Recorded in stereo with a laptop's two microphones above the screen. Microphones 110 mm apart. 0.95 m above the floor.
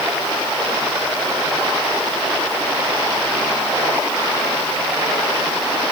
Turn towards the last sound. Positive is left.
No sound to turn to.